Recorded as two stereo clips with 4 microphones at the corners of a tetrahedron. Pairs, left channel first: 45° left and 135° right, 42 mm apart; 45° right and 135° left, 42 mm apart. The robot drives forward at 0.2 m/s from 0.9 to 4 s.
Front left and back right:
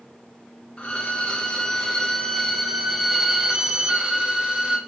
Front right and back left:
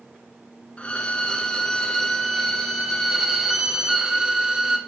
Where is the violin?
5° right, 0.6 m; by 4.8 s 175° right, 0.5 m.